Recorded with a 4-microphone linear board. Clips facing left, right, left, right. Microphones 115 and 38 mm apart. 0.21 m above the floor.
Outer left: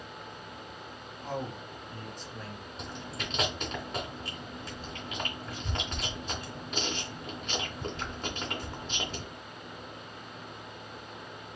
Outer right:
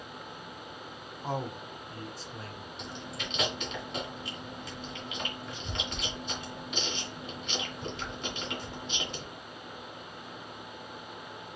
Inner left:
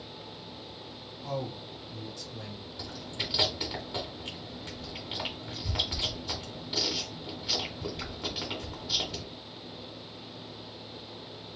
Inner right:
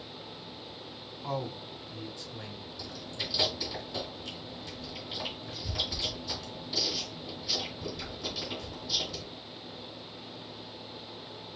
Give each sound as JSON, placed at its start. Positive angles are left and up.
{"t": 1.2, "sound": "a man speaking", "side_deg": -35, "distance_m": 1.2}
{"t": 2.8, "sound": "chewing", "side_deg": 40, "distance_m": 2.0}